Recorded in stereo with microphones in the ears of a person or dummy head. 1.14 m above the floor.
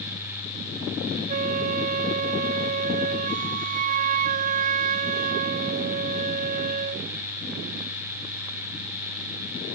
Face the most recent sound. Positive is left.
turn(degrees=-50)  # may be behind; listen again after turning